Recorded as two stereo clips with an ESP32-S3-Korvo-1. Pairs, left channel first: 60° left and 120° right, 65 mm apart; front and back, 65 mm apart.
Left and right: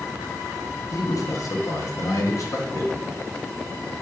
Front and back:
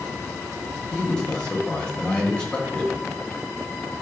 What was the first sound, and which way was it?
A man speaking, 75° left.